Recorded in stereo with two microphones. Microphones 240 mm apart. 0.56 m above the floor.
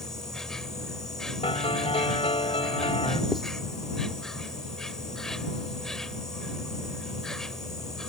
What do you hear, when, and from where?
0.0 s an insect: centre (ahead or behind)
1.4 s a piano: 25° left (ahead or behind)
3.3 s writing: centre (ahead or behind)